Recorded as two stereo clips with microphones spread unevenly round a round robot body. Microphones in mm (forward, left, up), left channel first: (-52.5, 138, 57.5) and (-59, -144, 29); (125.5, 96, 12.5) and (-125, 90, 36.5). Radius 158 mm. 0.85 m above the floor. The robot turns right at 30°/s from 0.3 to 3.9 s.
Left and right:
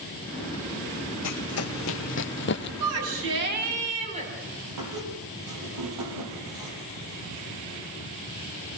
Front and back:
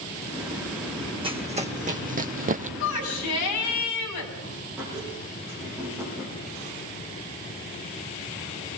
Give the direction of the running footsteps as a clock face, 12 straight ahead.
8 o'clock.